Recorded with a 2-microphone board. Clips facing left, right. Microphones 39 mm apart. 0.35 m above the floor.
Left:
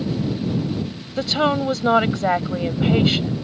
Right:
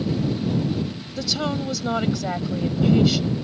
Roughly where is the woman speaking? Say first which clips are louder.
Left 7 dB; left.